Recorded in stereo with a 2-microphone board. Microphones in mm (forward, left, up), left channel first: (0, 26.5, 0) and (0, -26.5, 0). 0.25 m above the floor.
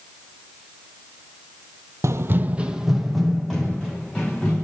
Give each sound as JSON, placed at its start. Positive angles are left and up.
{"t": 2.0, "sound": "running footsteps", "side_deg": -65, "distance_m": 0.5}